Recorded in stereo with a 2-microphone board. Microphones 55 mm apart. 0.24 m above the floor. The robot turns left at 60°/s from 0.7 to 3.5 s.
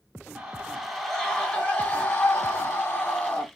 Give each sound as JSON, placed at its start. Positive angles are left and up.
{"t": 0.3, "sound": "a scream", "azimuth_deg": -145, "distance_m": 1.6}